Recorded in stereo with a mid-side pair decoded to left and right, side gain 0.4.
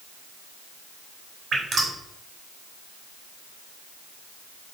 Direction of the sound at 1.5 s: 60° right.